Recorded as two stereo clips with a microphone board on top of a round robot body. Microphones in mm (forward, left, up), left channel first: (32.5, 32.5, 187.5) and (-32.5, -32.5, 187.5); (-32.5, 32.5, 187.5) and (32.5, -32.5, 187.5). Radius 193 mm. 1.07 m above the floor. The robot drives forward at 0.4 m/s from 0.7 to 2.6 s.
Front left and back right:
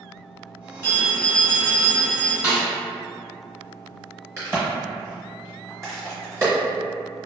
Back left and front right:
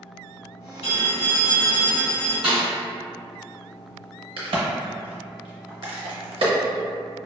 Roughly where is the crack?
Right.